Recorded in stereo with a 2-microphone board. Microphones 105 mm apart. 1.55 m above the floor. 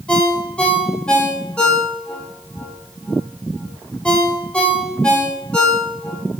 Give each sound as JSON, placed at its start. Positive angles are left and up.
{"t": 0.1, "sound": "a ringtone", "side_deg": 10, "distance_m": 0.6}